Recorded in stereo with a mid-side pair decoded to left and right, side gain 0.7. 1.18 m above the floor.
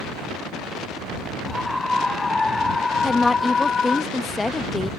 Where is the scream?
10° left; by 4.0 s 30° left.